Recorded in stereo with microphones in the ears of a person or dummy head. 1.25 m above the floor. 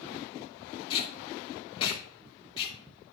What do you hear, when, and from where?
0.9 s tape being pulled: 35° left (ahead or behind), 1.9 m